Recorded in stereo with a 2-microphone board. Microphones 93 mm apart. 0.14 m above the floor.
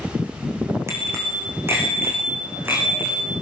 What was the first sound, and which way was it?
A bicycle bell, 30° right (ahead or behind).